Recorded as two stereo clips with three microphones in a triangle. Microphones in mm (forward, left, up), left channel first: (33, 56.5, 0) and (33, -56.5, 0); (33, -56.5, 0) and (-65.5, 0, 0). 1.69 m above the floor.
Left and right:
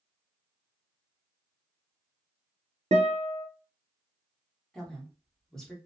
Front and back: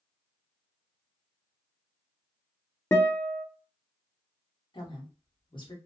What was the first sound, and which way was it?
A guitar, 100° right.